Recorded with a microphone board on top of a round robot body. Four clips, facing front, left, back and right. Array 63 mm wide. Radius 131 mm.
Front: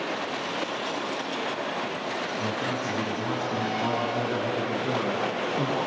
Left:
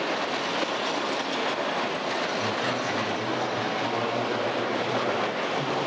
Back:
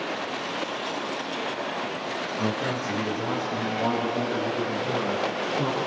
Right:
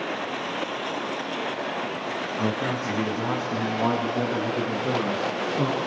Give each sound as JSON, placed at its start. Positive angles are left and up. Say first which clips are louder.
{"t": 2.4, "sound": "a man speaking", "louder": "right 1 dB, back 4 dB", "azimuth_deg": -105, "distance_m": 5.0}